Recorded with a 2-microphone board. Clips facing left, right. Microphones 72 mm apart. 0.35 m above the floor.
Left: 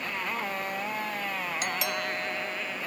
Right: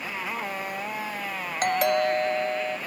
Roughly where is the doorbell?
Right.